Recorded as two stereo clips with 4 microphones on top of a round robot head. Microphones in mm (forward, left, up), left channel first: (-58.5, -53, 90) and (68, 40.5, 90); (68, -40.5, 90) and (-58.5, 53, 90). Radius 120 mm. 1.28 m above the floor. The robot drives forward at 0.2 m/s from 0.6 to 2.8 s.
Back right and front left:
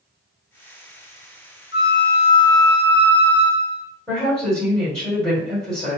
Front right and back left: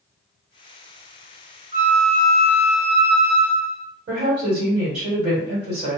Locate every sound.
1.7 s a flute: straight behind, 0.9 m
4.1 s a woman speaking: 130° left, 1.6 m